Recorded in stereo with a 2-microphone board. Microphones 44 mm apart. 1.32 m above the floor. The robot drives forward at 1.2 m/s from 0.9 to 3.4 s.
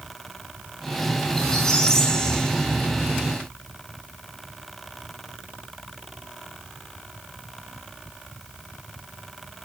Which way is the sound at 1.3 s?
10° left (ahead or behind).